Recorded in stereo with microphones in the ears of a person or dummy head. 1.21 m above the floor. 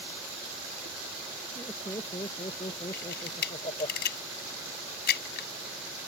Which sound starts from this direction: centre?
Laughter, at 1.6 s.